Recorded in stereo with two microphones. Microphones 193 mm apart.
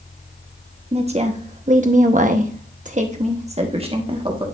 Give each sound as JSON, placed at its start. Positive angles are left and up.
{"t": 0.9, "sound": "a woman speaking", "side_deg": -30, "distance_m": 1.2}